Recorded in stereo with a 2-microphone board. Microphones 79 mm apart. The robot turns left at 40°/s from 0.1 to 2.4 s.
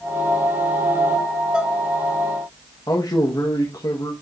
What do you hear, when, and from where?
1.5 s dishes clattering: 10° right (ahead or behind), 0.8 m; by 1.8 s 20° right (ahead or behind), 0.8 m
2.9 s a man speaking: 50° left (ahead or behind), 1.4 m